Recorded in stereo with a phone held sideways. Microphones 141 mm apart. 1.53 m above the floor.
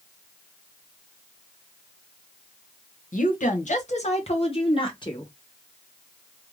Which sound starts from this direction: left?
A woman speaking, at 3.1 s.